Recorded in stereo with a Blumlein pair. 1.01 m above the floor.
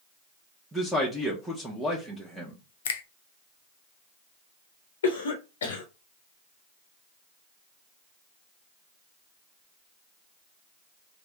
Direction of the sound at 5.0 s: 65° left.